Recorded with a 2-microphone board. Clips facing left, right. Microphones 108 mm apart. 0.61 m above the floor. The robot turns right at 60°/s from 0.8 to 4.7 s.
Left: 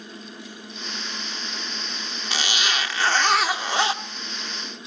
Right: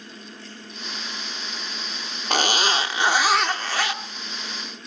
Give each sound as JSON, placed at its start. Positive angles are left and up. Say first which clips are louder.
{"t": 2.3, "sound": "a zipper", "louder": "right 6 dB", "azimuth_deg": -65, "distance_m": 0.8}